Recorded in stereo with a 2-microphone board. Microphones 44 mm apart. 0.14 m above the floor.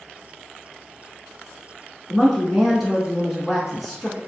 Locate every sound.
2.1 s a woman speaking: centre (ahead or behind), 1.2 m